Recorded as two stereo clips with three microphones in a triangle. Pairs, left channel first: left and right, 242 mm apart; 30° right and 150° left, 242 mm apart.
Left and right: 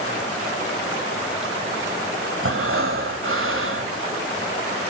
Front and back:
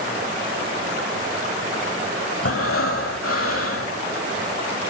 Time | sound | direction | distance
2.4 | breathing | 55° right | 1.4 m